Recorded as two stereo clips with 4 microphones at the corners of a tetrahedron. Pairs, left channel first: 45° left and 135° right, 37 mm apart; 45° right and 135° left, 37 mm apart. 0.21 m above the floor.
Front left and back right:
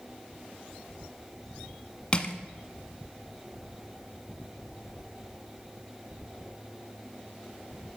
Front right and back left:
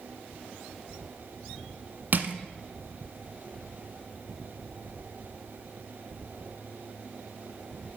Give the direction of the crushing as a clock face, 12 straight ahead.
8 o'clock.